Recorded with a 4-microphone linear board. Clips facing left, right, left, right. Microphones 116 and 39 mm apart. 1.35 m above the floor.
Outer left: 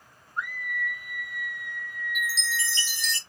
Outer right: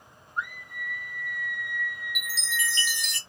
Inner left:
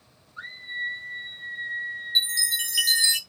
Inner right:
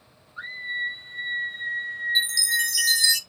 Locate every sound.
0.4 s a scream: 15° right (ahead or behind), 1.0 m; by 3.1 s 60° right (ahead or behind), 1.1 m
2.1 s a chime: 35° left (ahead or behind), 0.7 m